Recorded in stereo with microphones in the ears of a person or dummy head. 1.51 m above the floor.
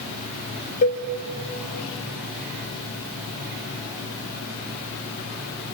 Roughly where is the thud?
I don't hear a thud.